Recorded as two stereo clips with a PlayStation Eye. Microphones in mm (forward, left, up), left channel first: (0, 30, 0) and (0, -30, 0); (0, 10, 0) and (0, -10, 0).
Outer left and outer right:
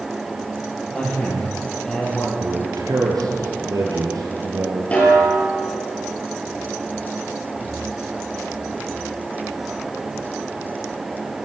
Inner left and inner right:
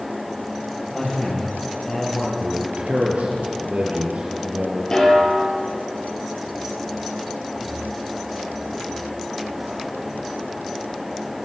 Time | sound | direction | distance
0.9 | a man speaking | 15° left (ahead or behind) | 8 m
2.4 | a man speaking | 75° right (ahead or behind) | 6.5 m
4.9 | a snare drum | 20° left (ahead or behind) | 8.5 m